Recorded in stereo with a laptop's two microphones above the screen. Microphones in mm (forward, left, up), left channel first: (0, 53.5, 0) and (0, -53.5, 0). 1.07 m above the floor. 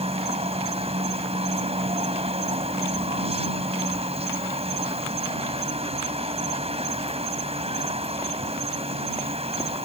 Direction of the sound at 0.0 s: 80° right.